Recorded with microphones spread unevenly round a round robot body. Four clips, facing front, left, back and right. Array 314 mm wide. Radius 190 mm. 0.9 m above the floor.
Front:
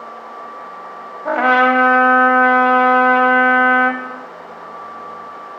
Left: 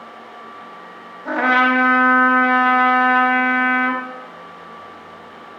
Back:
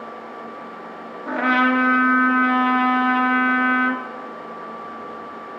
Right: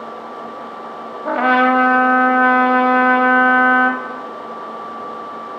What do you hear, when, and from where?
1.2 s a trumpet: 120° right, 0.7 m